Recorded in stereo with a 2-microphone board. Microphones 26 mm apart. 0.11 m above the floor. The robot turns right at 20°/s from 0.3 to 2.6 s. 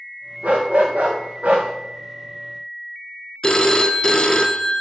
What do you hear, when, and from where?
0.4 s a dog barking: 65° right (ahead or behind), 3 m; by 1.7 s 40° right (ahead or behind), 3 m
3.4 s a phone ringing: 25° left (ahead or behind), 0.7 m